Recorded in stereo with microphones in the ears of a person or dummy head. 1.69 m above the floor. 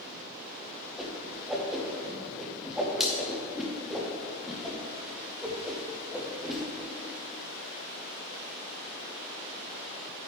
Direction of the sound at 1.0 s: 5° right (ahead or behind).